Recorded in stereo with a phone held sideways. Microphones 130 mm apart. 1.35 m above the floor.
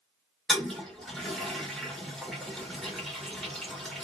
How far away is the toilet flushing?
About 1.1 m.